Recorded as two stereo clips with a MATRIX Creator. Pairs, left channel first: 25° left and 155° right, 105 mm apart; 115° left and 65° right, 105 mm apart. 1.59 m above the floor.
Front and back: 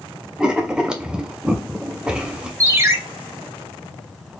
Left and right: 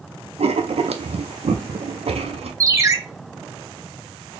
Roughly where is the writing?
Right.